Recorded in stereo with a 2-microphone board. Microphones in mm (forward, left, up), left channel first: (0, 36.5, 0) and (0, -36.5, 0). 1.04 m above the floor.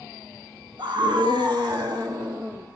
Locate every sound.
0.8 s a scream: 85° right, 1.3 m; by 2.7 s 55° right (ahead or behind), 1.9 m